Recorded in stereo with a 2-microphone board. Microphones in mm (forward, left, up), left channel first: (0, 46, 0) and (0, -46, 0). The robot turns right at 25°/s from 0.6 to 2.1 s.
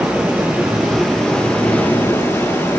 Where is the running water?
10° right, 9.5 m; by 2.8 s 30° left, 9.5 m.